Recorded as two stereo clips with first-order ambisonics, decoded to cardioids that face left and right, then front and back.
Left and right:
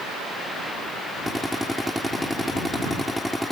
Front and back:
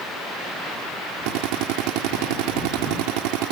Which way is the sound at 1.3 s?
Straight behind.